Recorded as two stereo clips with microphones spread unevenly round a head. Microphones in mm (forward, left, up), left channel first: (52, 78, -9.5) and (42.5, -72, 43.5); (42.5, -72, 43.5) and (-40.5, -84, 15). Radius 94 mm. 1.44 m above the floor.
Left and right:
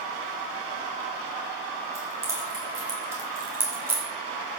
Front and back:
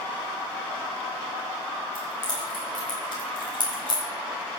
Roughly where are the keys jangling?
Ahead right.